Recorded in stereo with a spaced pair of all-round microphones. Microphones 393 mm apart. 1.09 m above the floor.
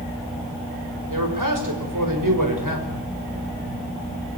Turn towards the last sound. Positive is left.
turn(degrees=-55)  # may be behind; listen again after turning